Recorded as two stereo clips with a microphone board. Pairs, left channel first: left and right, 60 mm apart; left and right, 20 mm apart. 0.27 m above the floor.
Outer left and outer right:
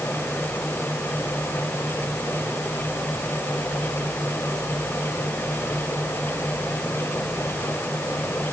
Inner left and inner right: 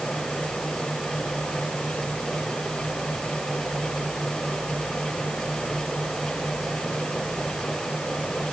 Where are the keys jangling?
I don't hear keys jangling.